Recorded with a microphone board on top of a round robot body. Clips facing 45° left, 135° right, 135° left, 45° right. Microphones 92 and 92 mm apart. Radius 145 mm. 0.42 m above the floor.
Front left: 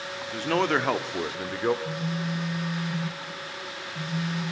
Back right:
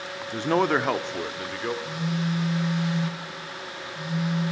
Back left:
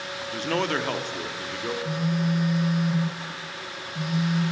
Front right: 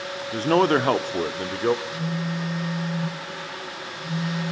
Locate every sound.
0.3 s a man speaking: 80° right, 1.2 m; by 1.8 s 15° right, 1.5 m
1.9 s a phone buzzing: 105° left, 7 m